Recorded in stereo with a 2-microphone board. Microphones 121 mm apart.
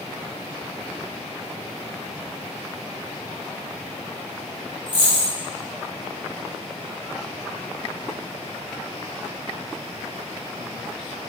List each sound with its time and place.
4.9 s a dropped coin: 15° left (ahead or behind), 1.4 m